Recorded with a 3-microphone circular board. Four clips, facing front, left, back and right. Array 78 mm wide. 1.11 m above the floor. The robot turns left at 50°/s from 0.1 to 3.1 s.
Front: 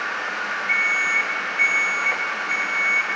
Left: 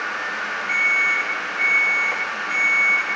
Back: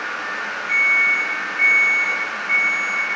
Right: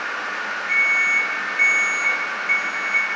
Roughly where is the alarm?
Ahead.